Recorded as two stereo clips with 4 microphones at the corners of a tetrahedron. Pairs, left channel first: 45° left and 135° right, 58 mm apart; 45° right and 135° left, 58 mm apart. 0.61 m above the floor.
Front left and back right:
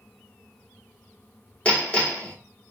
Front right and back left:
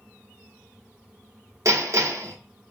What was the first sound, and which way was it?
Hammering, 110° left.